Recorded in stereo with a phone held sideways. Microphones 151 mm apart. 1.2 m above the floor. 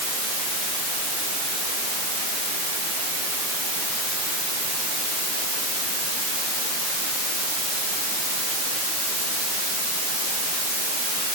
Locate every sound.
Only background noise.